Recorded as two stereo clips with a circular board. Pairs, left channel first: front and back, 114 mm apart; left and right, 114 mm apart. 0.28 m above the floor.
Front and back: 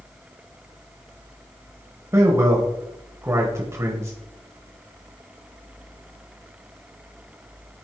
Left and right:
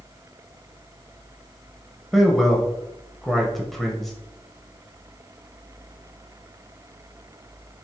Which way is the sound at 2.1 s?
175° left.